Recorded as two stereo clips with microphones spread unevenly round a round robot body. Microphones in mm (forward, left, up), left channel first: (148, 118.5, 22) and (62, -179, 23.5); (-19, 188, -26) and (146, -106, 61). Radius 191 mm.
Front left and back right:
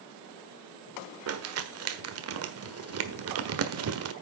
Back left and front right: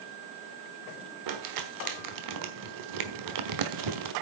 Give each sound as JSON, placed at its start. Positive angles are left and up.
{"t": 1.3, "sound": "crumpling", "azimuth_deg": -90, "distance_m": 1.5}